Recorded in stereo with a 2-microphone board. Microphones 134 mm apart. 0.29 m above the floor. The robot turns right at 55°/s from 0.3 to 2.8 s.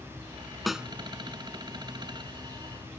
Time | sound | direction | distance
0.7 | a snare drum | centre (ahead or behind) | ?